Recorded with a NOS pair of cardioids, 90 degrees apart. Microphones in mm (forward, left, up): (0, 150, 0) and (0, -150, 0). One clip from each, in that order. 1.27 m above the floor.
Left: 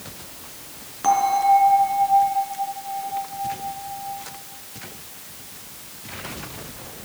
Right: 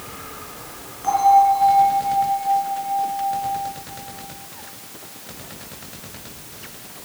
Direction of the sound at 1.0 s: 50° left.